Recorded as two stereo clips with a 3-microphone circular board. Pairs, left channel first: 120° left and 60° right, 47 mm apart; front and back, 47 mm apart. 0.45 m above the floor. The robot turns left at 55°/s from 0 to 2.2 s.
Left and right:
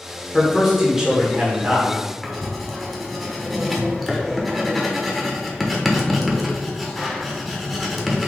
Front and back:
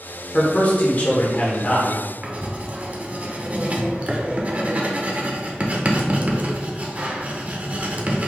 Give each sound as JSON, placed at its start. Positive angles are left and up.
{"t": 0.3, "sound": "a man speaking", "azimuth_deg": 40, "distance_m": 1.0}
{"t": 2.2, "sound": "writing", "azimuth_deg": -150, "distance_m": 0.6}